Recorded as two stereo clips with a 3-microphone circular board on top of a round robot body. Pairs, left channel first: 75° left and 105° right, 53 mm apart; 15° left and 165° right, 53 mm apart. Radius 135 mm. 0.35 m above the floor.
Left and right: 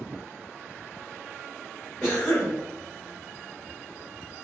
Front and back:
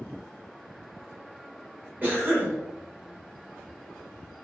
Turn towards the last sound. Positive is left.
turn(degrees=145)